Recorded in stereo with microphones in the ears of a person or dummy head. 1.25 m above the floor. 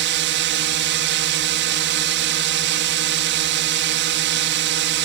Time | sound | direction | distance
0.0 | a drone | 60° right (ahead or behind) | ?